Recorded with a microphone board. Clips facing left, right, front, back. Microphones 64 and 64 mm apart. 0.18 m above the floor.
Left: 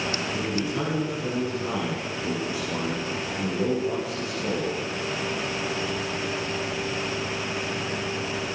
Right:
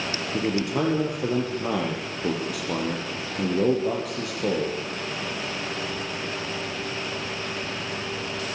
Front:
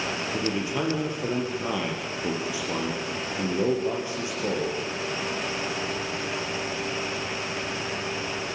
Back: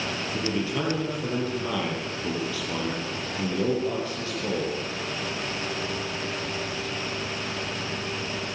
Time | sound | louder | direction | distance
0.3 | a man speaking | right 6 dB, back 1 dB | 75° right | 5 m